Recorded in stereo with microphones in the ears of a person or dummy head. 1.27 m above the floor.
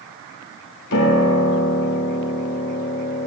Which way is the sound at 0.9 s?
65° left (ahead or behind).